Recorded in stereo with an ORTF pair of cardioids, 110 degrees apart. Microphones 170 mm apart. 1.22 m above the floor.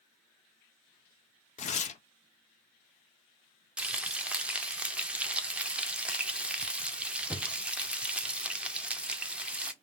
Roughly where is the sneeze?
I don't hear a sneeze.